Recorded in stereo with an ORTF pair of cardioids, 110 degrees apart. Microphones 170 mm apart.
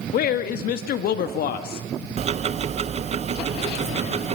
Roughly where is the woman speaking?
Ahead left.